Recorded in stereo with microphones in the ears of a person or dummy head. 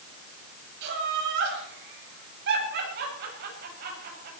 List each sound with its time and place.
0.8 s laughter: 70° right (ahead or behind), 8.5 m; by 4.3 s 55° right (ahead or behind), 7.5 m